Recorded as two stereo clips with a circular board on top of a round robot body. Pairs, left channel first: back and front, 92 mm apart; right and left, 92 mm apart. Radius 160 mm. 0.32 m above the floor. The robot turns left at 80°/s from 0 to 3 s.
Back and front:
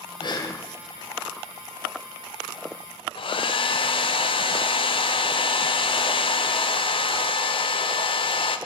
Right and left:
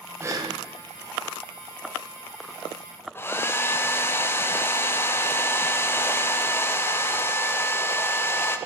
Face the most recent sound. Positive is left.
turn(degrees=-155)